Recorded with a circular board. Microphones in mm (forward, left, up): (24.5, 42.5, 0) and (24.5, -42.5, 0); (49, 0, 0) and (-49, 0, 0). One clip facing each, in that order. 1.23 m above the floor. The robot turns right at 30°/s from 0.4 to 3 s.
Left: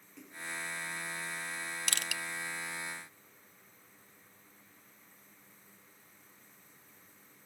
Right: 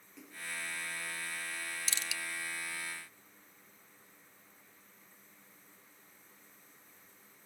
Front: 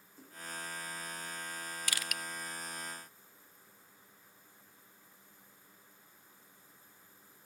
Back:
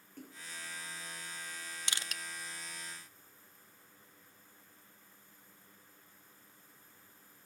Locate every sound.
0.2 s a splash: straight behind, 4.5 m; by 0.4 s 175° right, 4.5 m
1.9 s crushing: 115° left, 0.6 m; by 2.2 s 125° left, 0.6 m